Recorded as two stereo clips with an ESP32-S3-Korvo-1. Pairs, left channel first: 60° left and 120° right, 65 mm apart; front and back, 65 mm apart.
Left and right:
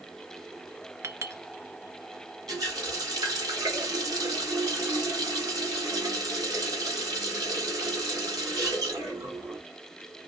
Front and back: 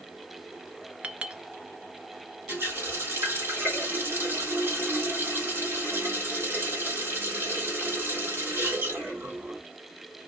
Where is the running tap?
125° right, 2.0 m.